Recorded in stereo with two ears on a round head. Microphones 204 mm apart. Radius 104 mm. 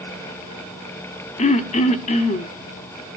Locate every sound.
1.4 s throat clearing: 30° left (ahead or behind), 1.1 m